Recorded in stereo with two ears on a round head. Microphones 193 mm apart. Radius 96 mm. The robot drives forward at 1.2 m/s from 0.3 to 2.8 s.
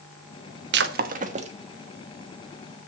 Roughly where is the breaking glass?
Right.